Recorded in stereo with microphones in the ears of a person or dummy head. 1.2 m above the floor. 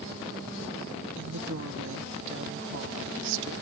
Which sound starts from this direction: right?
A woman speaking, at 1.2 s.